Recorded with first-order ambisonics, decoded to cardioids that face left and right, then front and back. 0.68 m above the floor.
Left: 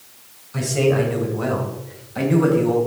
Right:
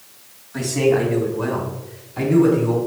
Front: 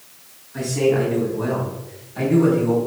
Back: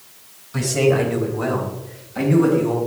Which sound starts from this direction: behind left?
A man speaking, at 0.5 s.